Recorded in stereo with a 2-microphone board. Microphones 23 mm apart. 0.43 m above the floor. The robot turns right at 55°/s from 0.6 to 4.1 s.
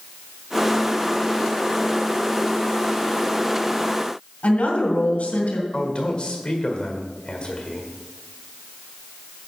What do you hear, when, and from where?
4.4 s a woman speaking: 75° left (ahead or behind), 3 m
5.7 s a man speaking: 45° left (ahead or behind), 1.7 m